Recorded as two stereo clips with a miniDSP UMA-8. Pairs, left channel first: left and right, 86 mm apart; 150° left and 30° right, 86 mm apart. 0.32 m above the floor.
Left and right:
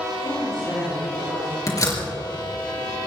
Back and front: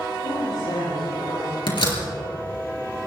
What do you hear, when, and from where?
0.2 s a woman speaking: 175° left, 8 m
1.7 s a door slam: 135° left, 4.5 m